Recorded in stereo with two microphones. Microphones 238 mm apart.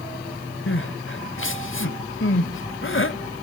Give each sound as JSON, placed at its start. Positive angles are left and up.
{"t": 0.7, "sound": "crying", "side_deg": 60, "distance_m": 0.7}